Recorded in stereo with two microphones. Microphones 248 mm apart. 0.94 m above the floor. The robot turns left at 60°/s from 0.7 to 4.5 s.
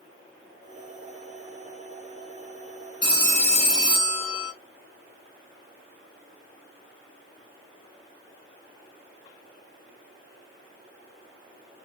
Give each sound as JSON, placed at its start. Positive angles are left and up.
{"t": 3.0, "sound": "a phone ringing", "azimuth_deg": 75, "distance_m": 1.7}